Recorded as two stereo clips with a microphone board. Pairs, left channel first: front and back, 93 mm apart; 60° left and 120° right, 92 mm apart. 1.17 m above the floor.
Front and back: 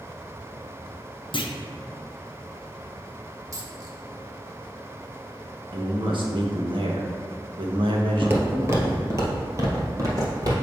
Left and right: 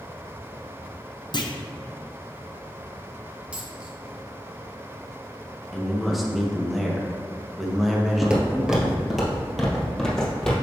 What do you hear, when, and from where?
1.3 s a clunk: 25° left, 0.6 m
3.5 s a dropped coin: 170° left, 0.8 m
5.7 s a man speaking: 150° left, 1.1 m
8.2 s footsteps: straight behind, 1.2 m; by 10.5 s 140° left, 1.9 m